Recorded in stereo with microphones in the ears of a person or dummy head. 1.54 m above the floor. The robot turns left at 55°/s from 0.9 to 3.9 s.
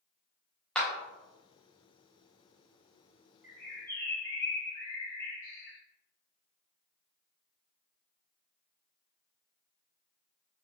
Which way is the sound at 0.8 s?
5° left (ahead or behind).